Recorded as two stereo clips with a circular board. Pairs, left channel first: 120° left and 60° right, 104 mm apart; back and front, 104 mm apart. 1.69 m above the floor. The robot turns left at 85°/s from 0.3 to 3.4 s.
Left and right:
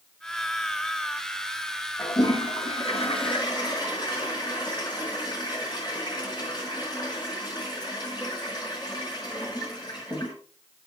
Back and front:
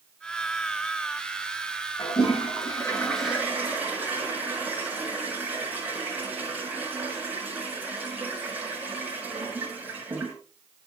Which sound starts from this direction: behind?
A toilet flushing, at 2.0 s.